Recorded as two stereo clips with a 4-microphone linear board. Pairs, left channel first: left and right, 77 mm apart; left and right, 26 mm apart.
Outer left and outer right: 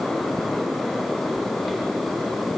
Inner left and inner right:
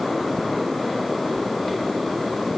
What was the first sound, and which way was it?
Only background noise.